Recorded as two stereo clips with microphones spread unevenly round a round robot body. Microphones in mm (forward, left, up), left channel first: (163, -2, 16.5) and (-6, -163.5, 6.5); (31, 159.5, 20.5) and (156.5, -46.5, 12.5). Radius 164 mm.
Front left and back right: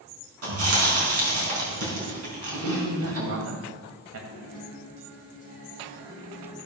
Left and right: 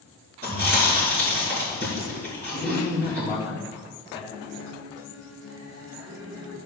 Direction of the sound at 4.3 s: 95° right.